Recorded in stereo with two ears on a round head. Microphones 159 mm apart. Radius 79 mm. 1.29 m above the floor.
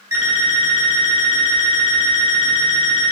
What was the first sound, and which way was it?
An alarm clock, 15° right (ahead or behind).